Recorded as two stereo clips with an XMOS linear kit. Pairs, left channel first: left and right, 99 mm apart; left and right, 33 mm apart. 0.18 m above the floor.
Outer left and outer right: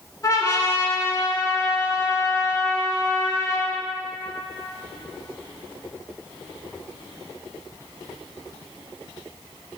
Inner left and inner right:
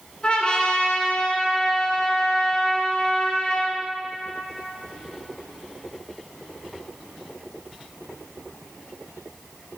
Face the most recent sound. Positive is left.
turn(degrees=35)  # may be behind; listen again after turning